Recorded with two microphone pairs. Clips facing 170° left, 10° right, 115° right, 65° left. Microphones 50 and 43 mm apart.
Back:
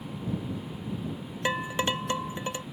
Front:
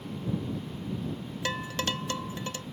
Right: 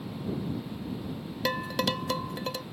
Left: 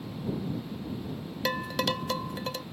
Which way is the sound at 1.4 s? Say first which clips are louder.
Back 4 dB, even; 155° left.